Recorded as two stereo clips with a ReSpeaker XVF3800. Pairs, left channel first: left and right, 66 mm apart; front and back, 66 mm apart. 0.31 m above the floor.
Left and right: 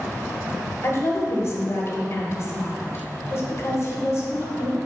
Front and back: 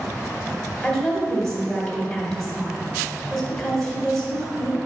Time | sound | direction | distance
0.8 | a woman speaking | 85° left | 1.7 m